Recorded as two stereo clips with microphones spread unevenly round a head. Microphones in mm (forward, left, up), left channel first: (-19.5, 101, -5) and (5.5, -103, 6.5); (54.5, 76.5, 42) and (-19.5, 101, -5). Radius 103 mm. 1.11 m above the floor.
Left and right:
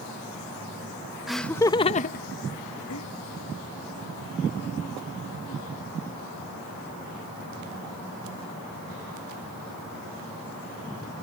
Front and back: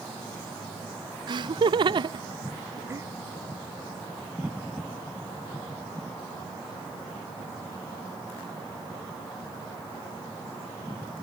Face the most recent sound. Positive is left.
turn(degrees=110)